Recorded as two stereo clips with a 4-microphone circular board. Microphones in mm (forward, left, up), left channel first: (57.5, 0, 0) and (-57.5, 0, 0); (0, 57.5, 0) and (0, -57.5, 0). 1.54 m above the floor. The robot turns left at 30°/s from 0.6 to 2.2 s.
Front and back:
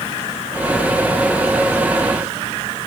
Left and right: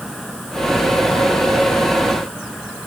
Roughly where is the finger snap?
No finger snap in this recording.